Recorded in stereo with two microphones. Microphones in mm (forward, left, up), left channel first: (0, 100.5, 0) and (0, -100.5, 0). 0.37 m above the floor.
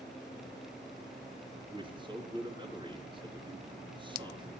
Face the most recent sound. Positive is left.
turn(degrees=-25)  # may be behind; listen again after turning